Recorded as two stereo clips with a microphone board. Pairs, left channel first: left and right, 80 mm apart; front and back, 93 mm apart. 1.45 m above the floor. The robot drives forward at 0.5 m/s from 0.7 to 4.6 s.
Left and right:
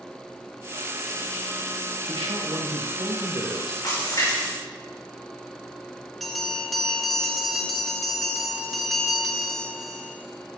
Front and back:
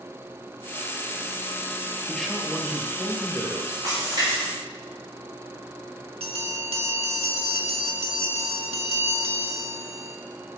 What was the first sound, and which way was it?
A man speaking, 85° right.